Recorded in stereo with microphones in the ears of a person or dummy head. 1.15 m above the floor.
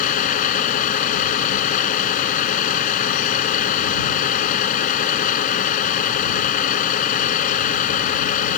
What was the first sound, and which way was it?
A vehicle, 50° left (ahead or behind).